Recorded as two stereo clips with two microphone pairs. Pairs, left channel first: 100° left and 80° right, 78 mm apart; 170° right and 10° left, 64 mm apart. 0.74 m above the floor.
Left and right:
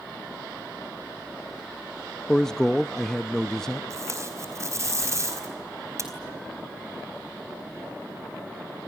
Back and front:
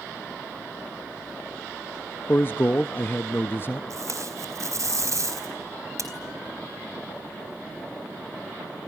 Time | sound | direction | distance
2.3 | a man speaking | 175° right | 0.5 m
3.9 | tape being pulled | 25° right | 4 m